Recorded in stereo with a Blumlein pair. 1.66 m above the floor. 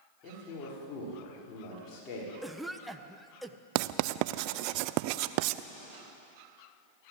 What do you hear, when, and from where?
0.2 s a man speaking: 25° left, 5.5 m
2.4 s a cough: 5° right, 1.4 m
3.8 s writing: 45° right, 0.6 m